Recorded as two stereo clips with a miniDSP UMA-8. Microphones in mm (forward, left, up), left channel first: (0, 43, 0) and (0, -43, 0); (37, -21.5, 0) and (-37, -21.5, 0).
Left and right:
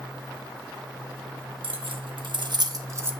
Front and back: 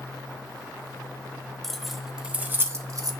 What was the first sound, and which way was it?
Keys jangling, 85° right.